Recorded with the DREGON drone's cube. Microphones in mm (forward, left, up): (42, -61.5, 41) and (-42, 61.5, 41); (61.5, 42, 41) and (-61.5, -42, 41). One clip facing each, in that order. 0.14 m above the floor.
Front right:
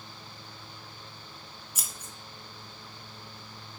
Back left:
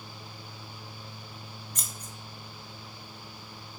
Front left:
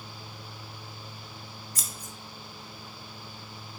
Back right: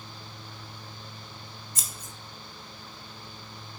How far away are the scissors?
About 0.5 m.